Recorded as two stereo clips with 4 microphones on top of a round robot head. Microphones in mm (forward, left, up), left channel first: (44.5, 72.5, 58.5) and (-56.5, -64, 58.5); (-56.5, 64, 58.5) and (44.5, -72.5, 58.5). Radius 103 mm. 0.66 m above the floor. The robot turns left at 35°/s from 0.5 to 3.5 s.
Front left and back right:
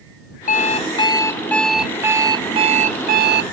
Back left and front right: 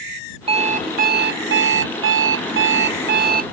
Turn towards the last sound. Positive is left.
turn(degrees=-100)